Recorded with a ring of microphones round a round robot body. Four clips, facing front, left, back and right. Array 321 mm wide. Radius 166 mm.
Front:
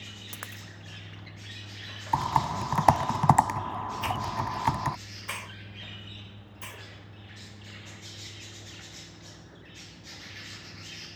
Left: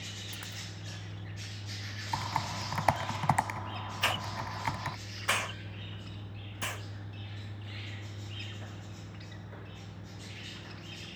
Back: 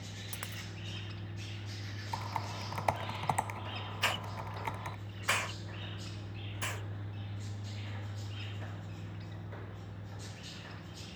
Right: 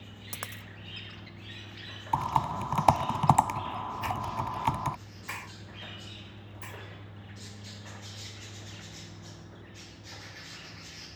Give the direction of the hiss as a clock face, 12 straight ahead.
8 o'clock.